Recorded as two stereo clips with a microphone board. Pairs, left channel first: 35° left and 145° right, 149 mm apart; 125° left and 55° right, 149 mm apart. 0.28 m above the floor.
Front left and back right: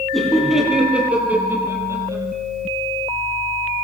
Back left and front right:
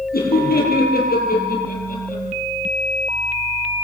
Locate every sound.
0.1 s laughter: 125° left, 9 m; by 2.2 s 145° left, 8.5 m